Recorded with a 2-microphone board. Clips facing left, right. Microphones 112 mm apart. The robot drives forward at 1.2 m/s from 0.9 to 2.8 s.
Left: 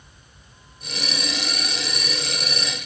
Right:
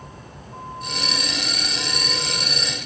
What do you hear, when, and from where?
0.0 s a vehicle: 75° right (ahead or behind); by 2.9 s 80° right